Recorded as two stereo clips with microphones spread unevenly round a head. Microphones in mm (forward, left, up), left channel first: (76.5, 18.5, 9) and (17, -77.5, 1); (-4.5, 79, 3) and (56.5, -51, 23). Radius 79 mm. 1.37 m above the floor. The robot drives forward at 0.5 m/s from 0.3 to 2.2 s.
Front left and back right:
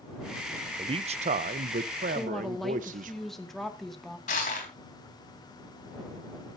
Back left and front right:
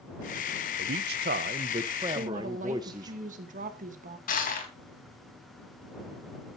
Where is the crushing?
85° left, 3.5 m.